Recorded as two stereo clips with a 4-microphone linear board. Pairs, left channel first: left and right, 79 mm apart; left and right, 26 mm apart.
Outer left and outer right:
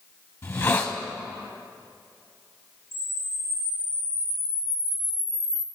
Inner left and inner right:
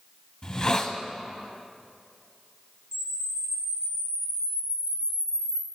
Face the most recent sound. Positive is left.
turn(degrees=-30)  # may be behind; listen again after turning